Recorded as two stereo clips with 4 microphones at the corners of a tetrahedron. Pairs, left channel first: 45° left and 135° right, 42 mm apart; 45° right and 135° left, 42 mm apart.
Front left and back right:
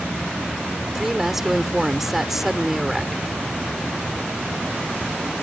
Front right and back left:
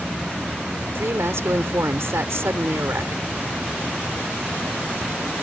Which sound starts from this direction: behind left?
A woman speaking, at 0.9 s.